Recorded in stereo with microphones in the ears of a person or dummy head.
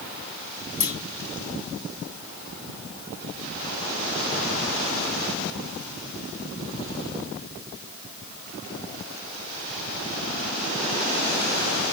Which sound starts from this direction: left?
A clunk, at 0.8 s.